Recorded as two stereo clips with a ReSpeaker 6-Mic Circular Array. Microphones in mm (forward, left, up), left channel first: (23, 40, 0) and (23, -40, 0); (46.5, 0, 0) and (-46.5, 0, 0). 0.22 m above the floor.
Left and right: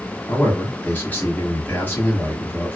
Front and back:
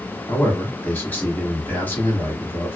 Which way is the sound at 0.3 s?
50° left.